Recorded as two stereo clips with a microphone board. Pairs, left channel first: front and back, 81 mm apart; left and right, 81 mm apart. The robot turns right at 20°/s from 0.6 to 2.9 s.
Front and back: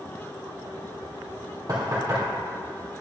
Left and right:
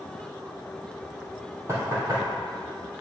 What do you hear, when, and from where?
1.7 s knocking: 140° right, 2 m; by 2.2 s 130° right, 2 m